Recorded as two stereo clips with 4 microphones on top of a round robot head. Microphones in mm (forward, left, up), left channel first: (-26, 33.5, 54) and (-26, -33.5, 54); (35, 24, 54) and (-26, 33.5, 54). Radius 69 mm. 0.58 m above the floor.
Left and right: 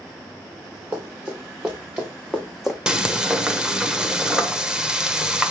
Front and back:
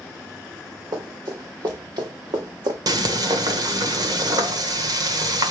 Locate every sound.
0.9 s running footsteps: 155° right, 4 m; by 2.8 s 175° right, 1.6 m
2.9 s frying: 170° right, 1.1 m